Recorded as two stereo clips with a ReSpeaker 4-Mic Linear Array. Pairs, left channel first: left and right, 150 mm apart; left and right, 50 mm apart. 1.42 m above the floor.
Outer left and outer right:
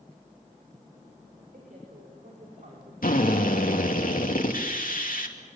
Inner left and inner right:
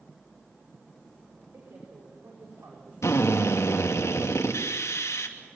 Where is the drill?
85° left, 2.5 m.